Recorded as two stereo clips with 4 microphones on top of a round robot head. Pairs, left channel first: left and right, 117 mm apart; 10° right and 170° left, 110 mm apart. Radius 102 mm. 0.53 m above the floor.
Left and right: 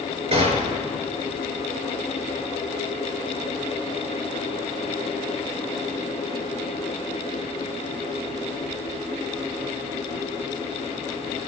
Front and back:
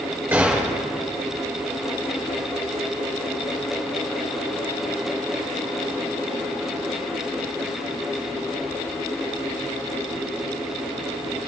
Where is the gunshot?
110° right, 3.5 m.